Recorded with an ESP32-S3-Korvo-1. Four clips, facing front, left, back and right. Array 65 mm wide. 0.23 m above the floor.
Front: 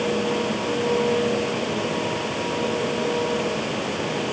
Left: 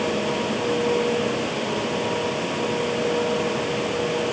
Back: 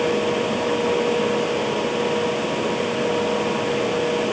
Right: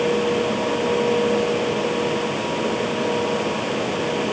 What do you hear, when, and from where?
Only background noise.